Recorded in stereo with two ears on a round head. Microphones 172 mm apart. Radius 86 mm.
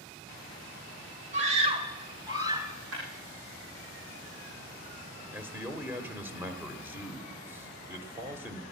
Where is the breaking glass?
70° right (ahead or behind), 8 m.